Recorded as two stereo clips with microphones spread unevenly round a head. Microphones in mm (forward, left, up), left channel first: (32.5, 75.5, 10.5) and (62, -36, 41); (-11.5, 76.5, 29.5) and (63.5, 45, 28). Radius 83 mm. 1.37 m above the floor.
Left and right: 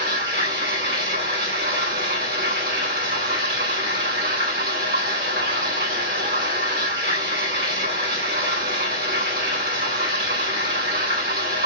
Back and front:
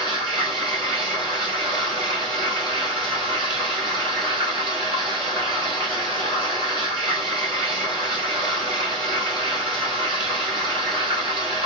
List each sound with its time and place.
0.0 s running water: 105° right, 4 m